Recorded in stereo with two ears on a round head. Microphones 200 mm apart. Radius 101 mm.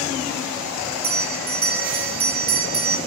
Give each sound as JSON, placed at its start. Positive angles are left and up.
{"t": 1.0, "sound": "a bell", "side_deg": -40, "distance_m": 0.7}